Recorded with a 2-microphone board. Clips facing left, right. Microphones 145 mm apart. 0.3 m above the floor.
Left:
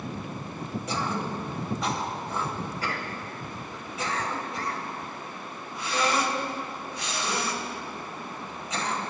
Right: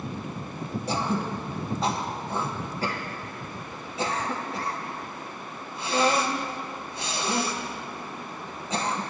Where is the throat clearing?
30° right (ahead or behind), 1.3 m.